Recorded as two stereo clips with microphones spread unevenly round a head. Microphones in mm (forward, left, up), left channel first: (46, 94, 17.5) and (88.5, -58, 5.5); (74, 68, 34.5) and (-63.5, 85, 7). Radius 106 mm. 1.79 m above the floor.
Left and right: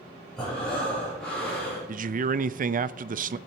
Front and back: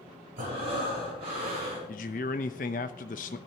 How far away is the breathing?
About 5 m.